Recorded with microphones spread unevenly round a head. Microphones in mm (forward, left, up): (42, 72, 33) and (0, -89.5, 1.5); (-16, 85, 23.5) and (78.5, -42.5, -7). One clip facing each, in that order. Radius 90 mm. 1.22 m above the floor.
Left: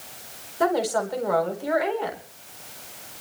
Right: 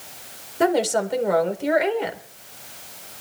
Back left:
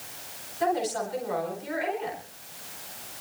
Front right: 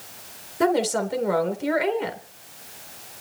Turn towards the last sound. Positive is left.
turn(degrees=-40)